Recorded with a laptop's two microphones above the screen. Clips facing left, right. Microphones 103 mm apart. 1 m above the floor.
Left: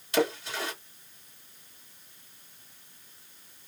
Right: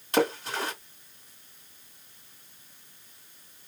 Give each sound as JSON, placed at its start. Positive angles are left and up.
{"t": 0.1, "sound": "a splash", "side_deg": -45, "distance_m": 2.0}